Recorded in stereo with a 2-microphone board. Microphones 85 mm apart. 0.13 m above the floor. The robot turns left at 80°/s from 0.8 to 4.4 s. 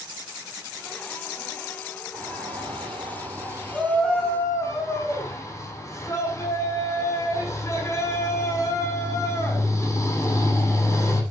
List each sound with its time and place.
2.1 s a shout: 35° right, 7.5 m; by 11.2 s 140° left, 7.5 m